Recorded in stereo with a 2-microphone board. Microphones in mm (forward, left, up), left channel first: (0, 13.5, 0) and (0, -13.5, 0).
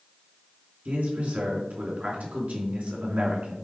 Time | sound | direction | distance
0.8 | a man speaking | 65° right (ahead or behind) | 3.5 m